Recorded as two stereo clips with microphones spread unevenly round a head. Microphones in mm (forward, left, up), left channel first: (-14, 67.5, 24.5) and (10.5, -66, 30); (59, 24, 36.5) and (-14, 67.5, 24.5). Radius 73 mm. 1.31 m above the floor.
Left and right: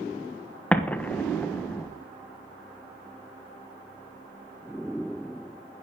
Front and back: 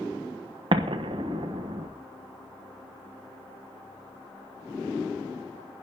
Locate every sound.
0.7 s an explosion: straight behind, 1.2 m